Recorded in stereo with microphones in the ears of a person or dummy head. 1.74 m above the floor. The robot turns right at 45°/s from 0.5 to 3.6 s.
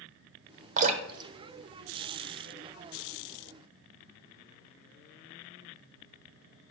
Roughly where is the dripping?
Right.